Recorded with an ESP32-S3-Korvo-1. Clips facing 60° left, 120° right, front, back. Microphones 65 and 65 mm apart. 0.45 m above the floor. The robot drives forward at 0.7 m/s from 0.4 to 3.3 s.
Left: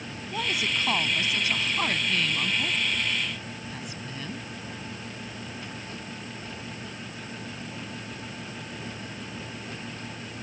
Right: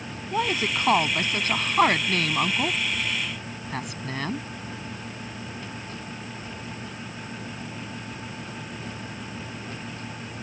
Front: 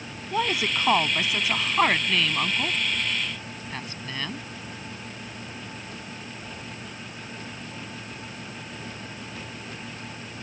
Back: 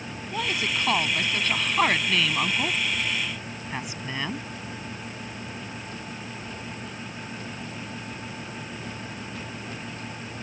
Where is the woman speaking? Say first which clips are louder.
Right 4 dB, front 3 dB; 65° right; by 4.5 s 105° right.